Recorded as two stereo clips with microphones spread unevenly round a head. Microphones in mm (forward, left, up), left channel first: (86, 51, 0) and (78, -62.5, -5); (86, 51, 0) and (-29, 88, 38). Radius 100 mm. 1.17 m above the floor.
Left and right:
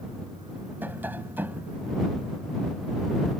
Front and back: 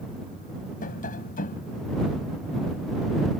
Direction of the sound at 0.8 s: 20° right.